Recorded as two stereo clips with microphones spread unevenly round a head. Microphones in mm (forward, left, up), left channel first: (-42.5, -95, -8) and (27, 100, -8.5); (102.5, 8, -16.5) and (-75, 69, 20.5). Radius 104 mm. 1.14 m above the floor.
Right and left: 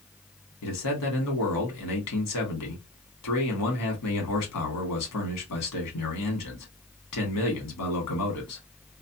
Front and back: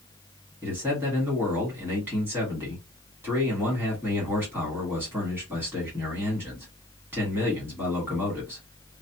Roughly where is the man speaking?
Behind right.